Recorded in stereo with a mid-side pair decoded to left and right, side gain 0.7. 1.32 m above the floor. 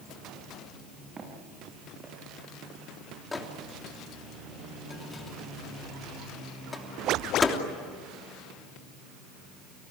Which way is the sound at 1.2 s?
25° right.